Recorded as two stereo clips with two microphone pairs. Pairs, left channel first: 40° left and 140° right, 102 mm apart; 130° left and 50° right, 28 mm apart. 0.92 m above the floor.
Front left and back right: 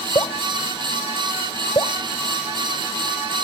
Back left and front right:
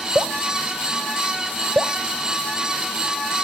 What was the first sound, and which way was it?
Dripping, 5° right.